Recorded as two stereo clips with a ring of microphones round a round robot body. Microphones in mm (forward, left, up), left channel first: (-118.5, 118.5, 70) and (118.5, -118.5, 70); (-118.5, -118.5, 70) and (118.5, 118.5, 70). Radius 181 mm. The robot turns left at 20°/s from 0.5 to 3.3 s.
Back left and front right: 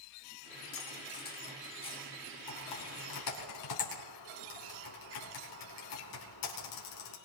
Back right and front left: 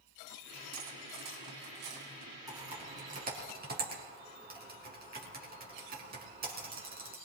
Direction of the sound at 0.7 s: 85° left.